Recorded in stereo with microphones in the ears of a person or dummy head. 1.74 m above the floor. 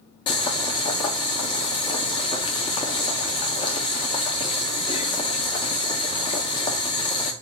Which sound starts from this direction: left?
Boiling, at 0.3 s.